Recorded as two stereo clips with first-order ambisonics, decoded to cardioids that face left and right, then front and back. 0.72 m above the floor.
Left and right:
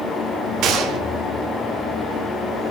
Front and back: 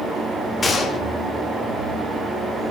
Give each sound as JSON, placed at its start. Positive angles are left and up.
{"t": 0.6, "sound": "a gunshot", "azimuth_deg": -65, "distance_m": 1.0}